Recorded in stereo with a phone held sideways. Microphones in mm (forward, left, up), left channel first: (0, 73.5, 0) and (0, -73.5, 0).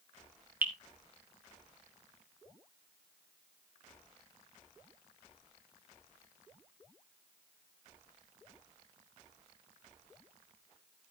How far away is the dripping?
About 1.7 m.